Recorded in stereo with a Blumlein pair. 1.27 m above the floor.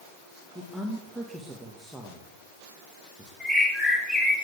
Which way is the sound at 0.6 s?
5° right.